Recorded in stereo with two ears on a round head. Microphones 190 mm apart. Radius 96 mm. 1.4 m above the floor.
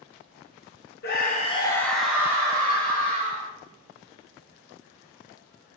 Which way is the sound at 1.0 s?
50° left (ahead or behind).